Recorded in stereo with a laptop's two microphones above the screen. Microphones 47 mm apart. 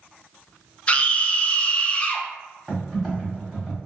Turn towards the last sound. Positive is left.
turn(degrees=10)  # may be behind; listen again after turning